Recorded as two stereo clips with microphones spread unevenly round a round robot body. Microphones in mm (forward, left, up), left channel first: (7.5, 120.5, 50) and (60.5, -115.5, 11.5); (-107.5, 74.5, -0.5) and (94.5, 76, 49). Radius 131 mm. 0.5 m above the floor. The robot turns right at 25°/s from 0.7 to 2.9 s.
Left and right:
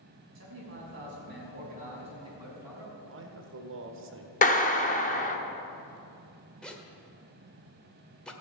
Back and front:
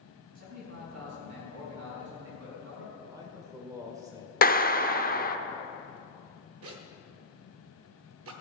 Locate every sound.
0.3 s a man speaking: 45° right, 5 m; by 2.9 s 10° left, 5 m
3.0 s a man speaking: 80° right, 1.6 m
4.4 s a clap: 165° left, 0.8 m
6.6 s a zipper: 10° left, 1.4 m